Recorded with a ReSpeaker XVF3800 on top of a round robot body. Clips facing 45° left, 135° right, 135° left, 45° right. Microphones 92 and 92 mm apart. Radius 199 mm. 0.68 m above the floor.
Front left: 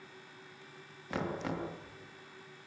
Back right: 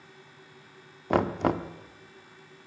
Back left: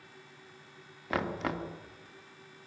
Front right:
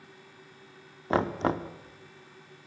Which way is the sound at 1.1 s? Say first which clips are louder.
Back right 11 dB, front right 6 dB; 105° right.